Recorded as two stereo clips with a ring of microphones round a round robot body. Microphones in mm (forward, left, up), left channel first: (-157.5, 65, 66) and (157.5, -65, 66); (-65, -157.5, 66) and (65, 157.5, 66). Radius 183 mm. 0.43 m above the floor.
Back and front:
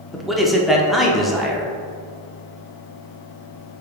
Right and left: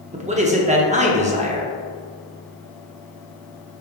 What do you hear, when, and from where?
0.1 s a man speaking: 65° left, 0.7 m